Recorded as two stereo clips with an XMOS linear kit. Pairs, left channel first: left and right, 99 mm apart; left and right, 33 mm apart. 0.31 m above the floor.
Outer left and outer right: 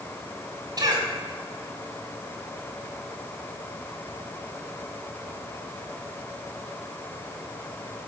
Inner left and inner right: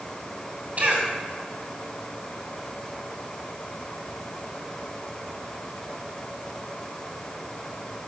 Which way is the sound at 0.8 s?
45° right (ahead or behind).